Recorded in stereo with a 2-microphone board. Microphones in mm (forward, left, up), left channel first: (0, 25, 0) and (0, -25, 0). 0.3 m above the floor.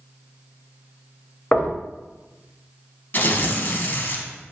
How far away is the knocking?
About 0.7 m.